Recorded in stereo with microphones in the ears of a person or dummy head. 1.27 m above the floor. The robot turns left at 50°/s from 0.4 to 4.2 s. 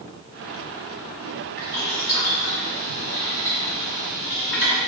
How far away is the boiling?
About 1.5 m.